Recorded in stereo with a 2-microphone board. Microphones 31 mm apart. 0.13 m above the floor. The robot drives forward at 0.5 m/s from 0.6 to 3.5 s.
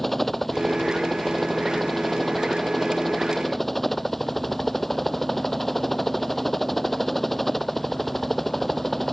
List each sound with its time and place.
0.0 s a helicopter: 5° left (ahead or behind)